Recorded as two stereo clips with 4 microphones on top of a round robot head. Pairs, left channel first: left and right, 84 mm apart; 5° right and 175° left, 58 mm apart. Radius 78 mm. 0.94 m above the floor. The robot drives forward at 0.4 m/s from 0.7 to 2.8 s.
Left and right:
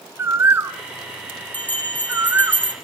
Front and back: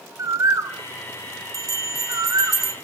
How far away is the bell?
About 1.8 m.